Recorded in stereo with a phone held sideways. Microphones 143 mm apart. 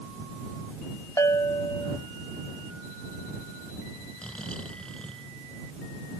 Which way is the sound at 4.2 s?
5° left (ahead or behind).